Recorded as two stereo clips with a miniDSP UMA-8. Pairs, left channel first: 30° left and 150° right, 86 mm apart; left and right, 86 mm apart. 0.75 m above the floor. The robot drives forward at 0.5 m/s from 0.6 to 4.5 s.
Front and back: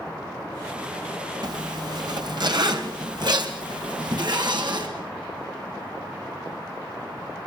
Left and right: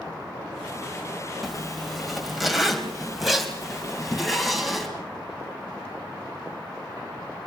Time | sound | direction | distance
1.4 | a zipper | straight behind | 2.5 m